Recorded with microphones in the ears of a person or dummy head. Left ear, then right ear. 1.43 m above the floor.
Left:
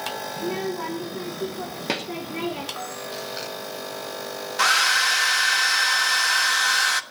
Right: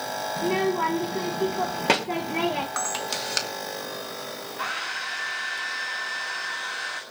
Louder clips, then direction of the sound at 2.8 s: Right 4 dB; 70° right (ahead or behind).